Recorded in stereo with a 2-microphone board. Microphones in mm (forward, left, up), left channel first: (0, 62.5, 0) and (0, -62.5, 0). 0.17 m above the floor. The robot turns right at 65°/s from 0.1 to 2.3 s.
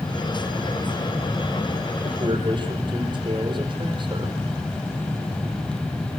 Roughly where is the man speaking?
Right.